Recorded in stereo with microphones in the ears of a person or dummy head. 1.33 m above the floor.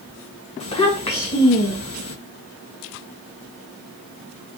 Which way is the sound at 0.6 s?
30° left (ahead or behind).